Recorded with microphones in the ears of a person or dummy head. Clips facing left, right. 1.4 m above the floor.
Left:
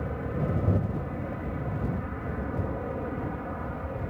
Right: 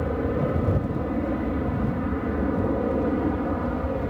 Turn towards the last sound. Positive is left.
turn(degrees=-55)  # may be behind; listen again after turning